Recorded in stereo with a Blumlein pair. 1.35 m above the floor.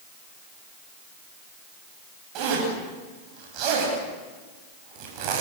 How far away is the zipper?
About 10 m.